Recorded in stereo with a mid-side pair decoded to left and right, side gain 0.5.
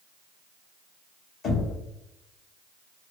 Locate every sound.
1.4 s knocking: 55° left, 1.4 m